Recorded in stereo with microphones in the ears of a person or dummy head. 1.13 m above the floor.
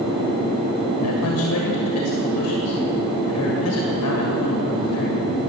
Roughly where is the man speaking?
Left.